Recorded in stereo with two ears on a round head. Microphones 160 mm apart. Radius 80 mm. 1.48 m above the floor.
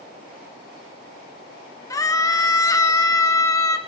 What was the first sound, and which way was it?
A scream, 20° left (ahead or behind).